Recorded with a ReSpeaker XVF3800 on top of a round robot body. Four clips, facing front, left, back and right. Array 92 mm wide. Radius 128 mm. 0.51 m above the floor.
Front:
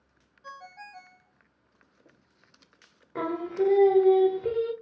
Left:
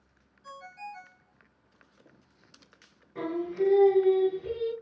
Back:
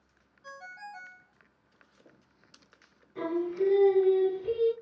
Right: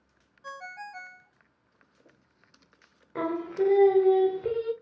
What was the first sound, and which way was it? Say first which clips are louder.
A ringtone: right 3 dB, even; 95° right.